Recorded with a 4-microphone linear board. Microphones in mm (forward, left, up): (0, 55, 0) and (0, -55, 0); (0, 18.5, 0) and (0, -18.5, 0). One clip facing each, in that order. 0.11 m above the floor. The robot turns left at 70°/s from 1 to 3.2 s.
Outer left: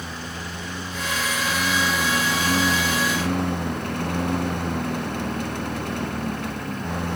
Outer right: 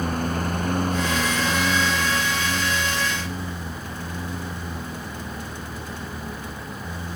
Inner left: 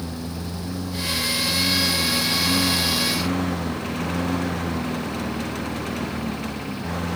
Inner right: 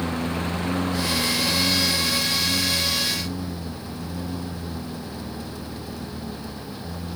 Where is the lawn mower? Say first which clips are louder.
Outer right 9 dB, inner right 5 dB; 125° right; by 7.2 s 80° left.